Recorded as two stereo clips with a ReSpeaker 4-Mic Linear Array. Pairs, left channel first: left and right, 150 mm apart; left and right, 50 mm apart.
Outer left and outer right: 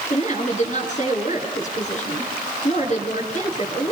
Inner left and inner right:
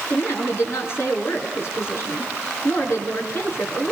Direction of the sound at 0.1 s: 50° left (ahead or behind).